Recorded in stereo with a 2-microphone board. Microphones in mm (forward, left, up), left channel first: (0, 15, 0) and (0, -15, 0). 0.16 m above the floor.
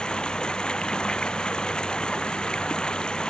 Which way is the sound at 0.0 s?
30° left (ahead or behind).